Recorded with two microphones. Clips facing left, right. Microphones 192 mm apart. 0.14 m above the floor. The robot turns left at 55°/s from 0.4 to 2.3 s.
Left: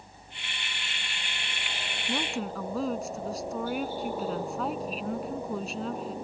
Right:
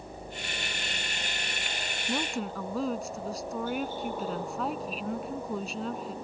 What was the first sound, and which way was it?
A helicopter, 85° right.